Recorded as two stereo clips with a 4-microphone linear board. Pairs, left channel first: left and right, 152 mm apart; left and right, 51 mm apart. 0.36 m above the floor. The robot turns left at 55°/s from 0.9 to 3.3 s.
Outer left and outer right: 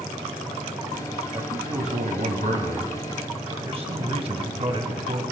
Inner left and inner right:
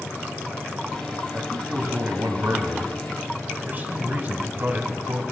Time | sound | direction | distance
1.3 | a man speaking | 25° right | 2 m